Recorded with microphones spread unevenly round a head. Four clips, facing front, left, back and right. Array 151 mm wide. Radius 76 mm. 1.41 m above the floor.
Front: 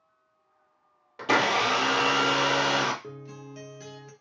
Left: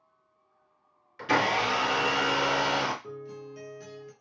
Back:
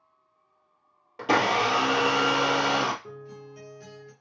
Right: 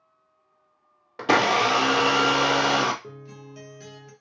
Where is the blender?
95° right, 0.6 m.